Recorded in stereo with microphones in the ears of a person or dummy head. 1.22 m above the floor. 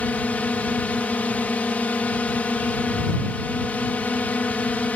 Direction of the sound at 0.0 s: 5° left (ahead or behind).